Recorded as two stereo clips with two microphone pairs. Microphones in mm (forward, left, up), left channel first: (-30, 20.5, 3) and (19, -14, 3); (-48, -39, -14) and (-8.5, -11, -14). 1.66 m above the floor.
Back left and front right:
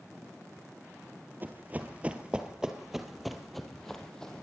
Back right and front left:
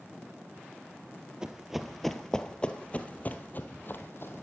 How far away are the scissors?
No scissors in this recording.